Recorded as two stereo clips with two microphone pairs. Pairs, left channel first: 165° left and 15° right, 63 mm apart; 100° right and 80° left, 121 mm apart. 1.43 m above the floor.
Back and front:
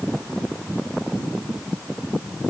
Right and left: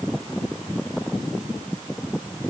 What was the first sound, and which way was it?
Only background noise.